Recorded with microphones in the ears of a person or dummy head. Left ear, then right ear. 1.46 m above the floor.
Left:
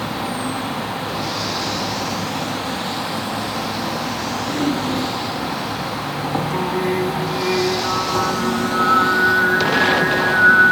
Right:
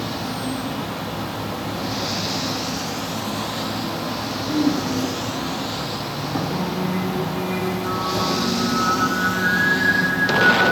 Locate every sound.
0.0 s an insect: 35° left (ahead or behind), 4 m
4.5 s throat clearing: 55° left (ahead or behind), 7.5 m
6.5 s singing: 70° left (ahead or behind), 4.5 m